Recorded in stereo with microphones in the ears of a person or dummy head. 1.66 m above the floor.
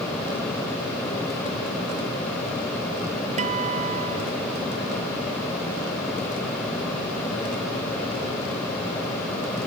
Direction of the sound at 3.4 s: 40° right (ahead or behind).